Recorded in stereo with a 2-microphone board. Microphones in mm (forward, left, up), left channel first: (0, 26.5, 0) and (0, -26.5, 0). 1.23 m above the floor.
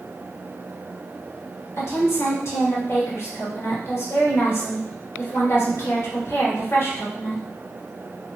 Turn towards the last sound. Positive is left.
turn(degrees=55)  # may be behind; listen again after turning